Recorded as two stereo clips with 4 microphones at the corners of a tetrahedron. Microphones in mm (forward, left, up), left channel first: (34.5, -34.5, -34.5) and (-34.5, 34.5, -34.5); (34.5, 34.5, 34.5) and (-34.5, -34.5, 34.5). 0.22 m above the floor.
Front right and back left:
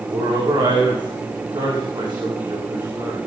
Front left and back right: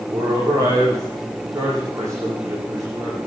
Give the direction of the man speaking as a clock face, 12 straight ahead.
6 o'clock.